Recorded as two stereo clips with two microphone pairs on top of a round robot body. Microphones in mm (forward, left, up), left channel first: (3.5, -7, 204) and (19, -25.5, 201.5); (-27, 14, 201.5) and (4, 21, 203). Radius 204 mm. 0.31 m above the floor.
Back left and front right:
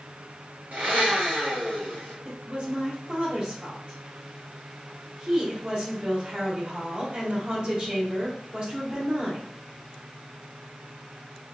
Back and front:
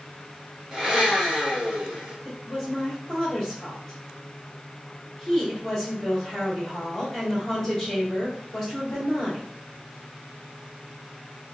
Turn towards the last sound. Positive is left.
turn(degrees=-90)